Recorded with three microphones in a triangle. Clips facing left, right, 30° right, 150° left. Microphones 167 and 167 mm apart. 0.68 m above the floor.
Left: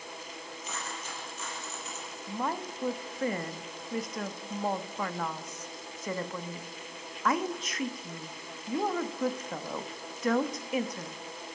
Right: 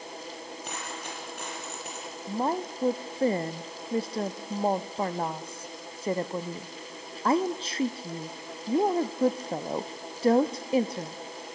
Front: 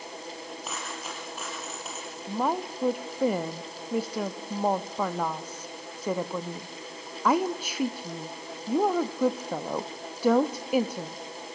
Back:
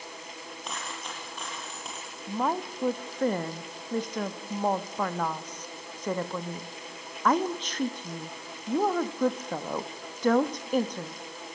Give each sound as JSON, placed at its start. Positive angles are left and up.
{"t": 0.6, "sound": "a dropped coin", "azimuth_deg": -115, "distance_m": 7.0}
{"t": 2.3, "sound": "a woman speaking", "azimuth_deg": -105, "distance_m": 0.8}